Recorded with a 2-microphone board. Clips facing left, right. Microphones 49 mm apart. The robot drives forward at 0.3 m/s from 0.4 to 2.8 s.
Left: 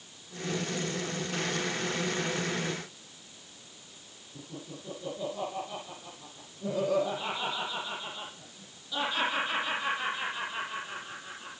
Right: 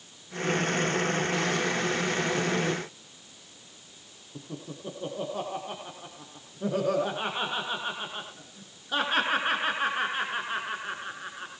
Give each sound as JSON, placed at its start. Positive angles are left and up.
{"t": 4.3, "sound": "laughter", "side_deg": -50, "distance_m": 8.5}